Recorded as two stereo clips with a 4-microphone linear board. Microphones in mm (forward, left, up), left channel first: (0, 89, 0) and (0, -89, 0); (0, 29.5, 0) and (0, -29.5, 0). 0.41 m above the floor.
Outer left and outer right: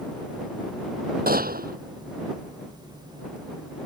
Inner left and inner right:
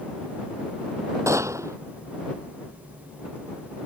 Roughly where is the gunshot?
Right.